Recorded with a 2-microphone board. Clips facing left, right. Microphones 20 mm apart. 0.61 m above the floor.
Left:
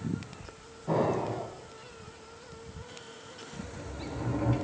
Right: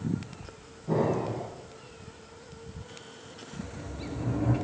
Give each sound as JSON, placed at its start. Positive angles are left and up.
{"t": 0.9, "sound": "an explosion", "side_deg": 70, "distance_m": 5.5}
{"t": 3.5, "sound": "a sliding door", "side_deg": 80, "distance_m": 5.5}